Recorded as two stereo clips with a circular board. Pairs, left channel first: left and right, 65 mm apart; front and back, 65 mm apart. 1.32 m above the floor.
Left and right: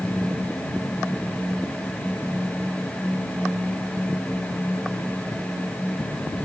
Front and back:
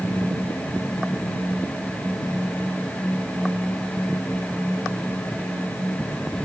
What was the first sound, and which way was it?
Only background noise.